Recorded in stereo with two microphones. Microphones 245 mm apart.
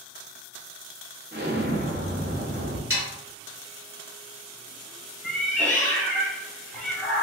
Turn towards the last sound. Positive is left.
turn(degrees=5)  # may be behind; listen again after turning